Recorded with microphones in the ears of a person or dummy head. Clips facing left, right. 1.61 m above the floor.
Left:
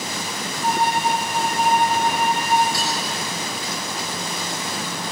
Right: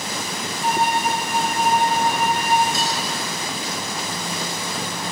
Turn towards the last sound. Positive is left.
turn(degrees=-20)  # may be behind; listen again after turning